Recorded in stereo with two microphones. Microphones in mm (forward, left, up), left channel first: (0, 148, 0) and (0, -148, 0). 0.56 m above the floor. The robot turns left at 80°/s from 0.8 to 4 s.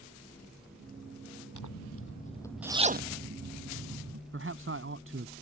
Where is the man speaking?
45° right (ahead or behind).